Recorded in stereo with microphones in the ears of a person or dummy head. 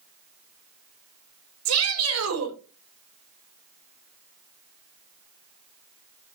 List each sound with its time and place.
1.6 s a shout: 80° right, 3.5 m